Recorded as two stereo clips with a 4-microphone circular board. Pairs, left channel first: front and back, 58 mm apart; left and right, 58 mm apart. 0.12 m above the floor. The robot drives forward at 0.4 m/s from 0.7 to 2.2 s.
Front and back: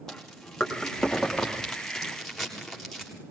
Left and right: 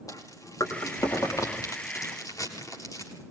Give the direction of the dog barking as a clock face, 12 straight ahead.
No dog barking in this recording.